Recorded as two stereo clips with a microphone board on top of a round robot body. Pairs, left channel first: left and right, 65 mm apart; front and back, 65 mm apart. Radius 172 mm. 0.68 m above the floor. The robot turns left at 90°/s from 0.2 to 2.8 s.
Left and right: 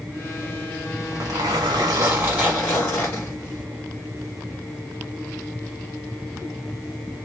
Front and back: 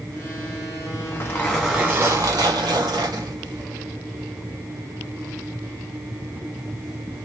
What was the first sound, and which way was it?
A zipper, 35° right.